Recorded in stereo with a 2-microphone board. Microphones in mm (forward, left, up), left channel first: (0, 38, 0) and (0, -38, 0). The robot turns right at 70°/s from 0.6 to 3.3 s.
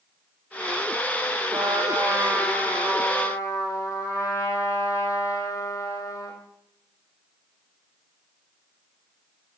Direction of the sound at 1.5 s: 80° right.